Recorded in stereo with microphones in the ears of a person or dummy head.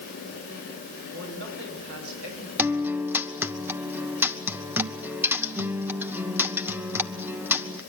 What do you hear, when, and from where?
1.1 s a man speaking: 80° right, 9.5 m; by 2.5 s 75° right (ahead or behind), 8 m
2.6 s a guitar: 5° right (ahead or behind), 0.8 m